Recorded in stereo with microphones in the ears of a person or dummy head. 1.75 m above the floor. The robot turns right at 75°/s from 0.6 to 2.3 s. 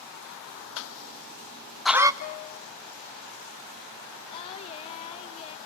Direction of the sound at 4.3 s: 35° left (ahead or behind).